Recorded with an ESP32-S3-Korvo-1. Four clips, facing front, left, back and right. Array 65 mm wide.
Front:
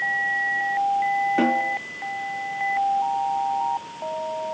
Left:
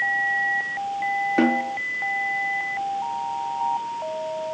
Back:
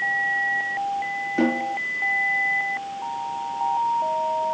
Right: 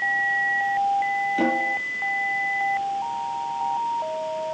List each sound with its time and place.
1.4 s a snare drum: 80° left, 7.5 m